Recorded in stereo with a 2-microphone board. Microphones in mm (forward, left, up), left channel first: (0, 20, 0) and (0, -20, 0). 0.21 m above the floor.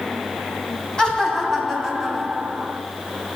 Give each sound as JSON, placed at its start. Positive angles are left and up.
{"t": 1.0, "sound": "laughter", "side_deg": 20, "distance_m": 1.9}